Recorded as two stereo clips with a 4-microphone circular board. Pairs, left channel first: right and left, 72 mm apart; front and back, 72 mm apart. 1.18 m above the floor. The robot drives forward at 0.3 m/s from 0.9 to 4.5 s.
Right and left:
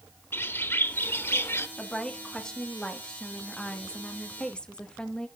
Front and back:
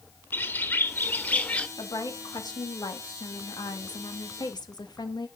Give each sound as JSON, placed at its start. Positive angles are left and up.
{"t": 0.3, "sound": "a bird", "azimuth_deg": -50, "distance_m": 1.0}
{"t": 1.8, "sound": "a woman speaking", "azimuth_deg": -10, "distance_m": 2.5}